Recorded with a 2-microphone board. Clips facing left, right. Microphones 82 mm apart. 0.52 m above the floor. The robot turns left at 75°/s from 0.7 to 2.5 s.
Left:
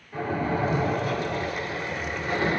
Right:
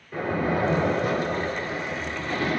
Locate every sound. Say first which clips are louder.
0.1 s a splash: right 2 dB; 80° right, 1.3 m; by 2.6 s 145° left, 1.3 m